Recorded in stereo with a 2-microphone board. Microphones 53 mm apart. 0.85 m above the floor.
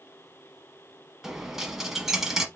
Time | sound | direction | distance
1.2 | a dropped coin | 5° right (ahead or behind) | 1.0 m